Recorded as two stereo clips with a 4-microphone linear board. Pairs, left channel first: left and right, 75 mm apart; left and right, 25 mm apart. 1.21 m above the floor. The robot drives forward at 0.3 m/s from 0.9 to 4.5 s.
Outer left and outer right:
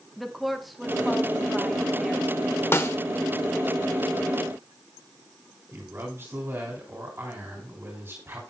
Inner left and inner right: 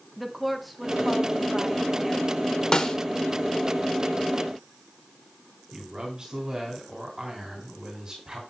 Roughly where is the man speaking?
Right.